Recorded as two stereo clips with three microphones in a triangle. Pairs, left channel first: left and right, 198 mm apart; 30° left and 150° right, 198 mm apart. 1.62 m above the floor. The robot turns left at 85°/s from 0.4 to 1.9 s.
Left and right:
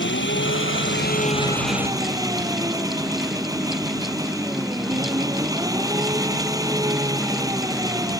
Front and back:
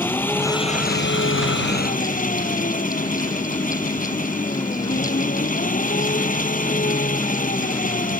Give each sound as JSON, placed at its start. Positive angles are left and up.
{"t": 0.0, "sound": "an engine running", "azimuth_deg": 110}